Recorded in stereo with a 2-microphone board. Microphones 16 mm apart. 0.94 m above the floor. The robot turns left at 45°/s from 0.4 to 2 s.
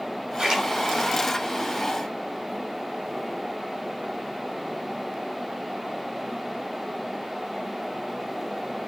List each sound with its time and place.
0.4 s a splash: 40° right (ahead or behind), 4 m; by 0.6 s 30° right (ahead or behind), 4 m